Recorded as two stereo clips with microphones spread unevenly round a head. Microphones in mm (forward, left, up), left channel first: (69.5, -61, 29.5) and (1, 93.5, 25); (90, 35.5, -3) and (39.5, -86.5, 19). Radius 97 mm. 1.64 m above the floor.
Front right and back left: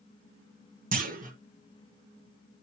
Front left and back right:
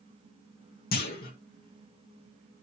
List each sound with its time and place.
0.9 s a clunk: 75° left, 1.8 m